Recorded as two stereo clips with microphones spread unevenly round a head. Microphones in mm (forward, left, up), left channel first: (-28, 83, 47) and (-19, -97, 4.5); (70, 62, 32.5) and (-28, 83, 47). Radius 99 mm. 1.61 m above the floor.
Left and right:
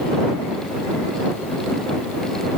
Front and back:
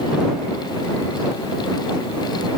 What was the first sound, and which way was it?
Only background noise.